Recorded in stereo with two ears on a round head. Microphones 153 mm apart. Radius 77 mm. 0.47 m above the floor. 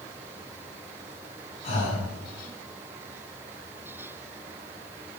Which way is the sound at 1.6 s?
40° left (ahead or behind).